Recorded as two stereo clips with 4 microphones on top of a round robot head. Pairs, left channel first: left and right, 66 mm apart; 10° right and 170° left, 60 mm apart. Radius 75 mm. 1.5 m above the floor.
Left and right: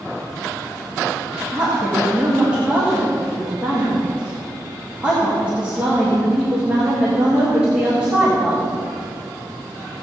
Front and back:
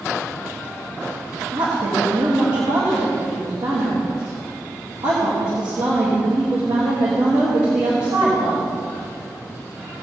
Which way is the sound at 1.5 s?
160° right.